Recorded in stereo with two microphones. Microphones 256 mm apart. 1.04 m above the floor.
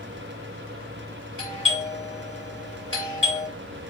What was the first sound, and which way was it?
A doorbell, 20° right (ahead or behind).